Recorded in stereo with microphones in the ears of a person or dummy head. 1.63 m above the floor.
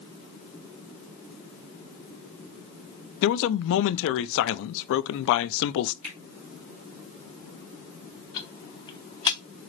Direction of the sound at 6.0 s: 70° right (ahead or behind).